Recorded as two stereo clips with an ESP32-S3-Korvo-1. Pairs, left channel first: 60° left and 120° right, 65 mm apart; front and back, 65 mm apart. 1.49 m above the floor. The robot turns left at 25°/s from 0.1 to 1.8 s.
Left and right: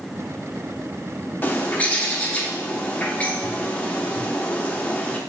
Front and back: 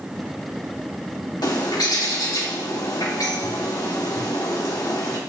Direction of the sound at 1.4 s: Straight ahead.